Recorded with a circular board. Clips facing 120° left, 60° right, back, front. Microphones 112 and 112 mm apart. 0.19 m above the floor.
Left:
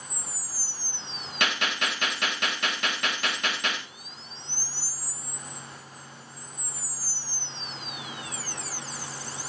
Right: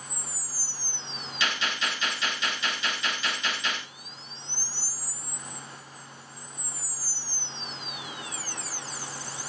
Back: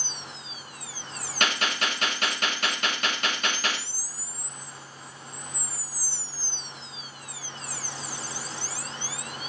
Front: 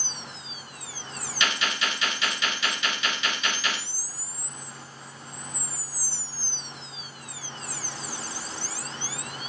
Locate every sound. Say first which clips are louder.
1.4 s a gunshot: left 2 dB, back 1 dB; 145° left, 7.5 m